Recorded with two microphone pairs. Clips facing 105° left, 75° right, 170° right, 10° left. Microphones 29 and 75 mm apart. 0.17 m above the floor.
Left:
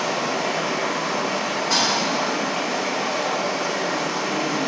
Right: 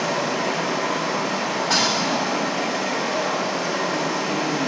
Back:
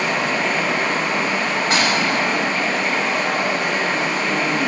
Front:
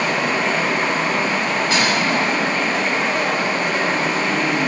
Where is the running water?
65° left, 1.7 m.